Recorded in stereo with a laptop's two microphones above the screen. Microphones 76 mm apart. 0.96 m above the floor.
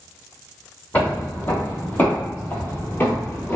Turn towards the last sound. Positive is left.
turn(degrees=25)  # may be behind; listen again after turning